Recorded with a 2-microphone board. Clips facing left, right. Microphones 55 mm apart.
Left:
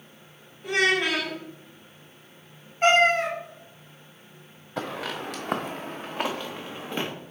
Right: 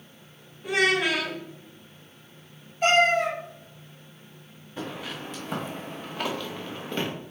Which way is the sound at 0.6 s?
Centre (ahead or behind).